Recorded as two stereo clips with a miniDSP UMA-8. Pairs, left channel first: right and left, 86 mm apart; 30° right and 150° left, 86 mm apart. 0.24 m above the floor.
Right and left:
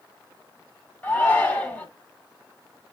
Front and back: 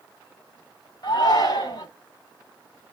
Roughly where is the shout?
Ahead right.